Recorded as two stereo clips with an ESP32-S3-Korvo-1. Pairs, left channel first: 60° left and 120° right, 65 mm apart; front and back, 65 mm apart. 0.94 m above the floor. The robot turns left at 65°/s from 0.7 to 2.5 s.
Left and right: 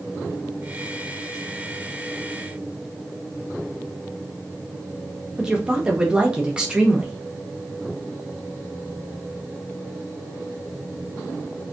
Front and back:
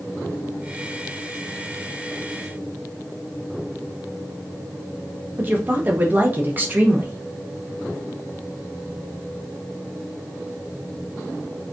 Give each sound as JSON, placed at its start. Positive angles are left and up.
{"t": 5.4, "sound": "a woman speaking", "azimuth_deg": 180, "distance_m": 0.6}